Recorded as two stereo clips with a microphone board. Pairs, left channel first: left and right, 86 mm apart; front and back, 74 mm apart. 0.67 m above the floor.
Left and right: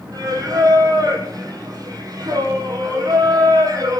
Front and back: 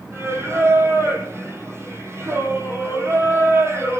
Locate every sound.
0.1 s singing: 130° right, 4.5 m